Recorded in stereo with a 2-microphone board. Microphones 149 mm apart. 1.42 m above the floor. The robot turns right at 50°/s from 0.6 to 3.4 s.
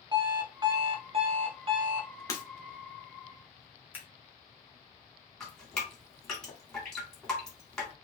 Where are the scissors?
10° right (ahead or behind), 1.2 m.